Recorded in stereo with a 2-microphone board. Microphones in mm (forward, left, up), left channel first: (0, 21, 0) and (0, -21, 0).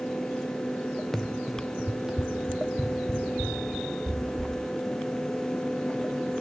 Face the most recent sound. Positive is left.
turn(degrees=-20)  # may be behind; listen again after turning